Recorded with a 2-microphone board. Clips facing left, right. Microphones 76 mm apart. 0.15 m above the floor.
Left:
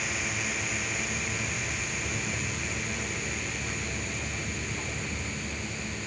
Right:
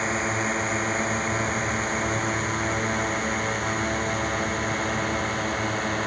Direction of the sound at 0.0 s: 45° right (ahead or behind).